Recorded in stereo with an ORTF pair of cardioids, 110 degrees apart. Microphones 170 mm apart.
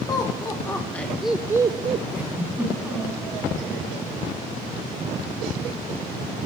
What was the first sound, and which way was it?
Laughter, 25° left.